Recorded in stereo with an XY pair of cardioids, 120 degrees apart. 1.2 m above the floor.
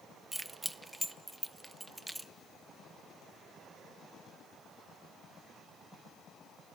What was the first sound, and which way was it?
Keys jangling, 10° right.